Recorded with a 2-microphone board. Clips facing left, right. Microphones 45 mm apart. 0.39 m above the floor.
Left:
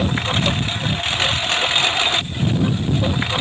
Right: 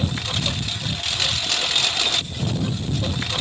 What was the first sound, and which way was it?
A lawn mower, 35° left (ahead or behind).